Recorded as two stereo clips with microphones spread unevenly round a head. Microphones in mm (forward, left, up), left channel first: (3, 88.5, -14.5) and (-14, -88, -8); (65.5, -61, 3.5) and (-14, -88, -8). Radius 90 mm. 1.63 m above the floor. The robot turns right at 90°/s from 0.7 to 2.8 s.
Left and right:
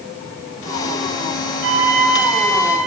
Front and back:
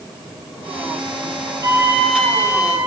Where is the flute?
110° right, 7.5 m; by 2.8 s 10° right, 7.5 m.